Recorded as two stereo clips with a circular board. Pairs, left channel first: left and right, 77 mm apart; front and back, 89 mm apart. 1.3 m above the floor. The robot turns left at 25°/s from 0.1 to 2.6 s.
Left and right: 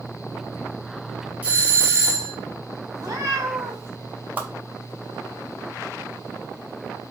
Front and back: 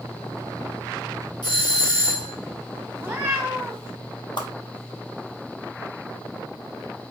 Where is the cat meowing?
115° right, 1.8 m.